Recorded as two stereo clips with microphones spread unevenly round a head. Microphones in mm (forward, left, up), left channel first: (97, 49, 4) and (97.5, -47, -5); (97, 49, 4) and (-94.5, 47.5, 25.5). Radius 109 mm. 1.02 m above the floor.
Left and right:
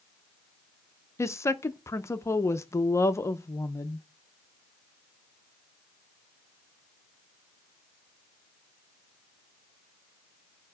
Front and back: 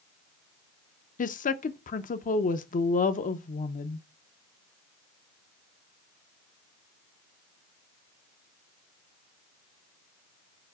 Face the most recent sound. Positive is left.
turn(degrees=30)